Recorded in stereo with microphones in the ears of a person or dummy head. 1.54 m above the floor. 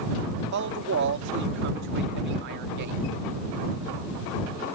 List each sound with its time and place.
0.5 s a man speaking: 60° right (ahead or behind)